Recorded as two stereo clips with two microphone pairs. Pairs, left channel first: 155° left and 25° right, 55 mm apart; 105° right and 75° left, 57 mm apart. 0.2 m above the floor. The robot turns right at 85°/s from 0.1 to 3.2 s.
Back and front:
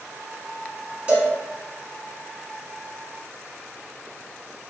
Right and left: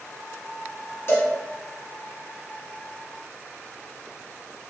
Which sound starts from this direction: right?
A cowbell, at 1.1 s.